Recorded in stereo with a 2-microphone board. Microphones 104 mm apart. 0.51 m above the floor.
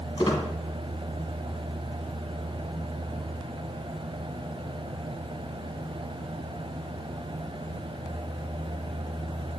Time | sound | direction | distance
0.2 | a squeak | 50° left (ahead or behind) | 1.5 m